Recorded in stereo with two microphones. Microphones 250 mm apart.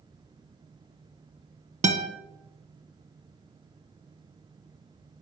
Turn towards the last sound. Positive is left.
turn(degrees=-25)  # may be behind; listen again after turning